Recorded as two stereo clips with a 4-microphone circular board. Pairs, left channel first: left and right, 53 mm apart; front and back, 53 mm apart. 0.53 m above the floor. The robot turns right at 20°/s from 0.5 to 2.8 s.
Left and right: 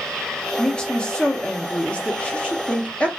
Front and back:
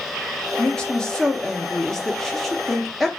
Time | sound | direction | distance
0.6 | a woman speaking | 50° left | 0.7 m